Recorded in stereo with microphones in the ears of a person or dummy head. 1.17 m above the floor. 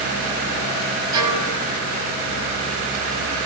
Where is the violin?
25° right (ahead or behind), 9 m.